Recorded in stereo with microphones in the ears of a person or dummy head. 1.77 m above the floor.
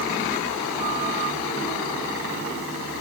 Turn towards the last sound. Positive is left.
No sound to turn to.